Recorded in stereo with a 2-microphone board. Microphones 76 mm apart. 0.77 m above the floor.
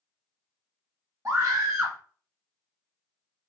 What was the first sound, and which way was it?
A scream, 40° right (ahead or behind).